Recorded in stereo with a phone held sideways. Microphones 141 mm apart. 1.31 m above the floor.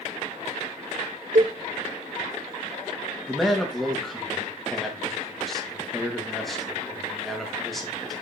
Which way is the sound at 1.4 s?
70° right (ahead or behind).